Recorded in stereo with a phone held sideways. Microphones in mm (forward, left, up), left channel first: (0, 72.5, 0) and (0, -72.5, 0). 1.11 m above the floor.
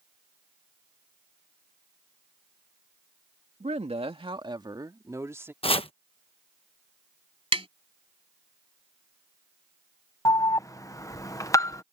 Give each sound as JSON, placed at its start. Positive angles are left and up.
{"t": 3.6, "sound": "a woman speaking", "side_deg": -55}
{"t": 5.6, "sound": "chopping", "side_deg": 40}
{"t": 7.5, "sound": "tapping", "side_deg": -45}
{"t": 10.2, "sound": "an alarm", "side_deg": 25}